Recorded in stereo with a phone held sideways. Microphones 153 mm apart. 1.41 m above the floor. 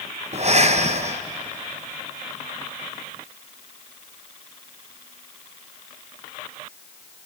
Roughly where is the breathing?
Right.